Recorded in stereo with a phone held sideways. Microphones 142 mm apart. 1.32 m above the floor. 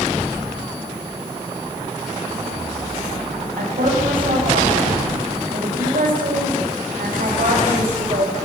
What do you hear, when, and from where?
3.6 s a woman speaking: 85° right, 8.5 m; by 8.3 s 70° right (ahead or behind), 6.5 m